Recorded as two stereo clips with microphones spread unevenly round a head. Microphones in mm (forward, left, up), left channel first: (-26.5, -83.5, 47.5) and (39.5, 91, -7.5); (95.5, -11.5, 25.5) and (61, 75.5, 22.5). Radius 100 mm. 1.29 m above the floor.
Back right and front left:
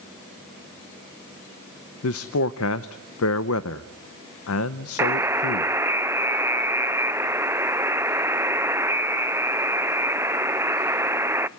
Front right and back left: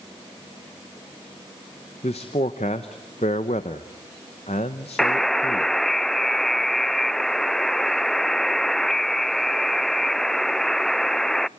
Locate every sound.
2.0 s a man speaking: 120° right, 0.7 m
5.0 s a buzzer: 20° left, 0.5 m